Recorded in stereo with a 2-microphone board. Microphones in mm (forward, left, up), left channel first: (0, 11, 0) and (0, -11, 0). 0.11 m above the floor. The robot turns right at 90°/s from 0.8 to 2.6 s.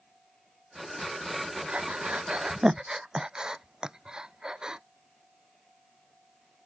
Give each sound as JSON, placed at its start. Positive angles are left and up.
{"t": 1.7, "sound": "breathing", "side_deg": -60}